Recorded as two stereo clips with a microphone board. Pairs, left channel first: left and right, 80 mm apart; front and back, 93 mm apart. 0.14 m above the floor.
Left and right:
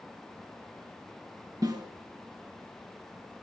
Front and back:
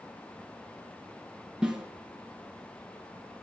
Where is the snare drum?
100° right, 1.8 m.